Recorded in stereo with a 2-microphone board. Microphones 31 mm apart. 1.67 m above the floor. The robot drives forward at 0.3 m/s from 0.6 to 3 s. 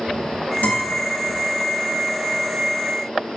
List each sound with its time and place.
0.6 s a guitar: 75° left (ahead or behind), 2.5 m; by 0.9 s 70° left (ahead or behind), 2.5 m